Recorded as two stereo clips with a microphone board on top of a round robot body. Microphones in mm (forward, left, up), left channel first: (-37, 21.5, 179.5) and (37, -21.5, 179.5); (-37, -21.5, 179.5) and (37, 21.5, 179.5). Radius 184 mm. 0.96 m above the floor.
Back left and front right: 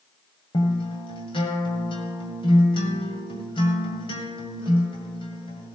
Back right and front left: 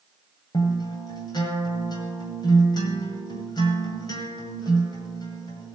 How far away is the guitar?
About 1.8 m.